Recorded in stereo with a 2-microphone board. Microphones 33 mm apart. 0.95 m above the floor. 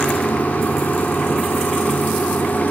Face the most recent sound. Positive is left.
turn(degrees=60)  # may be behind; listen again after turning